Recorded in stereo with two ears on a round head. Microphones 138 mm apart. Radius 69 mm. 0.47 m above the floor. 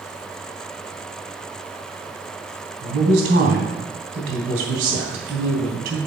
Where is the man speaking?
75° right (ahead or behind), 3 m.